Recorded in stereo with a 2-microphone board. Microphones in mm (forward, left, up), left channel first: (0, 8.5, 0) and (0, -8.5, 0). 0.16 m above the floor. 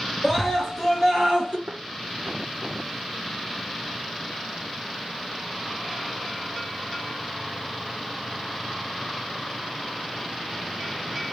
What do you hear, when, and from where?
0.2 s a scream: 10° right (ahead or behind), 3.5 m; by 1.6 s 25° right (ahead or behind), 3.5 m
1.7 s a thud: 60° right (ahead or behind), 2.5 m